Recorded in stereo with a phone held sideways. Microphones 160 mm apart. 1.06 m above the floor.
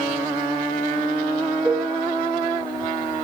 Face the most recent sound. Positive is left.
turn(degrees=-55)  # may be behind; listen again after turning